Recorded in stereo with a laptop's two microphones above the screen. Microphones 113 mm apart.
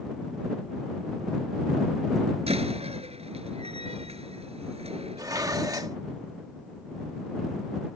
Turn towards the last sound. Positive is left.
turn(degrees=-30)  # may be behind; listen again after turning